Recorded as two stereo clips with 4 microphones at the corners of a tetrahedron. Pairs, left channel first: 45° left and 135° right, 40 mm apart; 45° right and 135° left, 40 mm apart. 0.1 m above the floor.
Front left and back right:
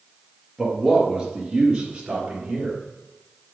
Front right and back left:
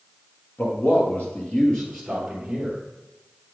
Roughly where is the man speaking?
Ahead right.